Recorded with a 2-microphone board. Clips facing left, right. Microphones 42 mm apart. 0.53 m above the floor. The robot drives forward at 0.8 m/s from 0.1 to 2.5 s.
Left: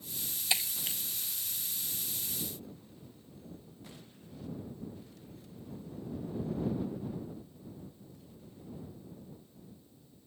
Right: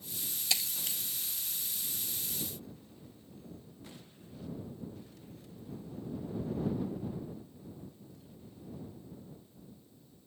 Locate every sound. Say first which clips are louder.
0.5 s breaking glass: left 2 dB; 20° left (ahead or behind); by 1.0 s 15° left (ahead or behind)